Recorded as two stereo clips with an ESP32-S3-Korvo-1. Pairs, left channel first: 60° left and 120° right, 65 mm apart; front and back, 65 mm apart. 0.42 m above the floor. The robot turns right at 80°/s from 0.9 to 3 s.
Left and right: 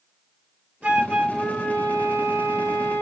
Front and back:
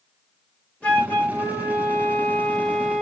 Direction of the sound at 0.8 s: 60° right.